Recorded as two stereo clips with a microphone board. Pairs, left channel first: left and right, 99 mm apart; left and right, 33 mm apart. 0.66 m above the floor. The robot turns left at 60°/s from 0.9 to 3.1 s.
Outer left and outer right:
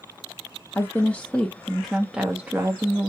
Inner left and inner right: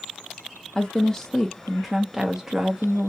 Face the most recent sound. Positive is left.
turn(degrees=-25)  # may be behind; listen again after turning